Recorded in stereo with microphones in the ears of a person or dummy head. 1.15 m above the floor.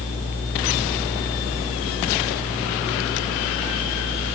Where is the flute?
No flute in this recording.